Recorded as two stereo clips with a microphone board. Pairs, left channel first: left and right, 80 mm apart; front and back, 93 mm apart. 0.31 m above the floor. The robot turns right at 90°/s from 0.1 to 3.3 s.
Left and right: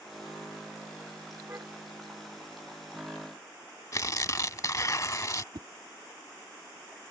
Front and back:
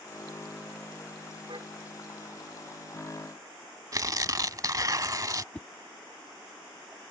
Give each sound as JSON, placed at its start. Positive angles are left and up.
{"t": 1.5, "sound": "a car horn", "azimuth_deg": -155}
{"t": 3.9, "sound": "tearing paper", "azimuth_deg": 130}
{"t": 5.5, "sound": "a whoosh", "azimuth_deg": -75}